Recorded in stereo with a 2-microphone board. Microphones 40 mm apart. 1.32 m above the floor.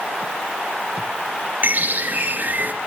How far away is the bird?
About 0.9 m.